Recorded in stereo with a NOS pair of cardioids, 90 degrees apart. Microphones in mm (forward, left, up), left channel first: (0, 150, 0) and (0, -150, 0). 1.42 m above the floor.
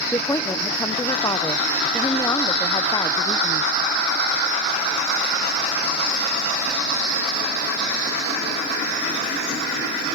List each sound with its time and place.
0.1 s a woman speaking: 10° left, 0.6 m